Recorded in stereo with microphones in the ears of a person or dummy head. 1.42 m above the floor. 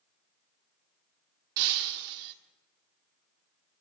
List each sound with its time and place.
1.6 s breaking glass: 45° right (ahead or behind), 1.4 m